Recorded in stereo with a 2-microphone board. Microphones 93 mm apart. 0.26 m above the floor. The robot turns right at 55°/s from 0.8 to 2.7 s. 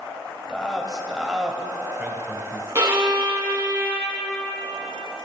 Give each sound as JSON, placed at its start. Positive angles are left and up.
{"t": 0.5, "sound": "a man speaking", "side_deg": 10, "distance_m": 1.1}
{"t": 2.8, "sound": "a violin", "side_deg": -30, "distance_m": 1.5}